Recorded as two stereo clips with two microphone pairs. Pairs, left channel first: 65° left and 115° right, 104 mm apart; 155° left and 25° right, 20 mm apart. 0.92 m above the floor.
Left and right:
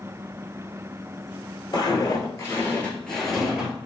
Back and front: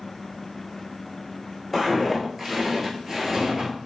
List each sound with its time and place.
1.7 s footsteps: 70° left, 1.1 m; by 3.7 s 45° right, 1.0 m